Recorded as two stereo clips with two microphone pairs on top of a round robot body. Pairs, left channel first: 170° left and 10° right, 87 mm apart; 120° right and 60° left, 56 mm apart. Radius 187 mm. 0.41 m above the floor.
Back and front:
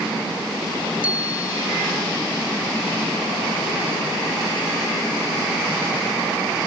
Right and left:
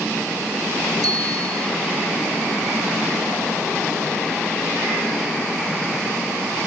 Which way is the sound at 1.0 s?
65° left.